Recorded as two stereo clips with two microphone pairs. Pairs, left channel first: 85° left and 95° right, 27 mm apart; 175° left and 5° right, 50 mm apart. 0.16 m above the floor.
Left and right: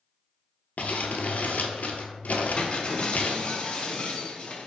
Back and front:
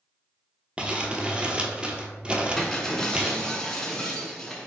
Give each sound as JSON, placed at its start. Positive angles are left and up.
{"t": 0.8, "sound": "crumpling", "azimuth_deg": 65, "distance_m": 0.7}
{"t": 2.6, "sound": "breaking glass", "azimuth_deg": 105, "distance_m": 1.0}